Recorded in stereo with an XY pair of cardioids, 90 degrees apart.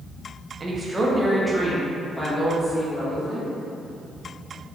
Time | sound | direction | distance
0.6 | a woman speaking | 40° right | 0.8 m